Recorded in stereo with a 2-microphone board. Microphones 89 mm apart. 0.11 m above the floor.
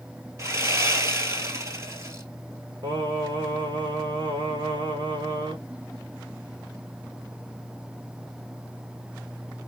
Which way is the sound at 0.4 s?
30° right (ahead or behind).